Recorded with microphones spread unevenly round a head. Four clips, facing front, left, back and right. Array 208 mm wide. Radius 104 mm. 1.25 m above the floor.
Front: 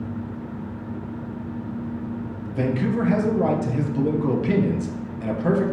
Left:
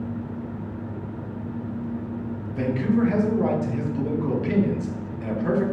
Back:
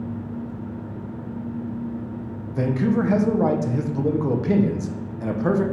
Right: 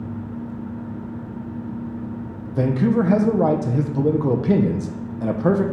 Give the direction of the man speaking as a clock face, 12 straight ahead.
3 o'clock.